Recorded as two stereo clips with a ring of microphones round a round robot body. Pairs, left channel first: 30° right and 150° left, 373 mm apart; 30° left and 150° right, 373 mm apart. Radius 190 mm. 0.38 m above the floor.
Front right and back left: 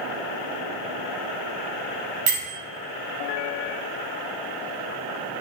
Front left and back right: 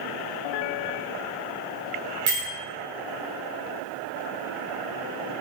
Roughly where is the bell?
Behind left.